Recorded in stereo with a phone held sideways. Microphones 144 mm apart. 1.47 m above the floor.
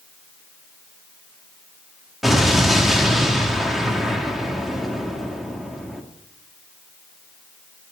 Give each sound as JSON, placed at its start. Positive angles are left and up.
{"t": 2.2, "sound": "an explosion", "side_deg": 0, "distance_m": 1.7}